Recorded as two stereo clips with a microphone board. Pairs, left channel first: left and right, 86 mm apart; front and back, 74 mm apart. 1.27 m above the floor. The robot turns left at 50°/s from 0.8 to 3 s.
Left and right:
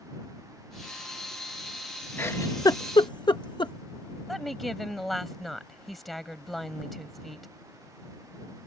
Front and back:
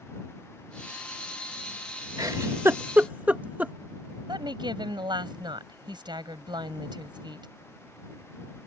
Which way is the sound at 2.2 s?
155° left.